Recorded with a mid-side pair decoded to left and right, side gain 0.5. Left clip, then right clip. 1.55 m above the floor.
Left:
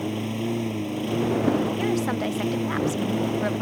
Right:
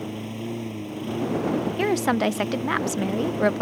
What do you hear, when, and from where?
0.0 s a lawn mower: 20° left
1.8 s a woman speaking: 50° right